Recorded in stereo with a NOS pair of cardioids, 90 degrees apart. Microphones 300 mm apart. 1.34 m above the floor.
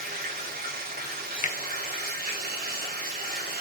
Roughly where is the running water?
Ahead right.